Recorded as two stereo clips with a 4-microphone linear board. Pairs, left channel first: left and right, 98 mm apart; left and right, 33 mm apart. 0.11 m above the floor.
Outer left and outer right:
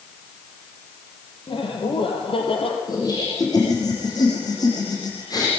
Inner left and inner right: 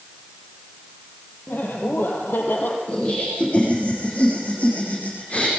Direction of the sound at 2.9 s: 40° left (ahead or behind).